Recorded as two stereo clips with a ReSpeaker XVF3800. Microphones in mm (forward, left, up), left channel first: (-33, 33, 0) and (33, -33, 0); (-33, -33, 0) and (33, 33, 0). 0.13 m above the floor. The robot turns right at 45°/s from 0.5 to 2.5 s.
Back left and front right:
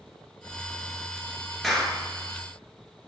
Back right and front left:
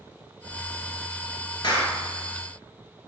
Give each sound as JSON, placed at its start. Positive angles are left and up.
{"t": 1.6, "sound": "a clap", "azimuth_deg": -135, "distance_m": 2.0}